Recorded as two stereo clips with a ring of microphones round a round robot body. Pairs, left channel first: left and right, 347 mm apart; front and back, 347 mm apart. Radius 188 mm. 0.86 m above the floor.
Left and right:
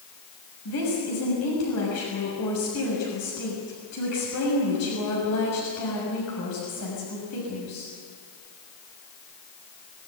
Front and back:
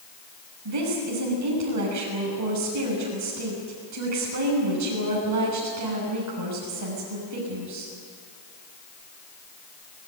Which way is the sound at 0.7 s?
145° left.